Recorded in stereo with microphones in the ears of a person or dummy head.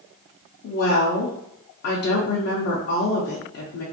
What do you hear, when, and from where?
0.6 s a woman speaking: 60° left (ahead or behind), 0.6 m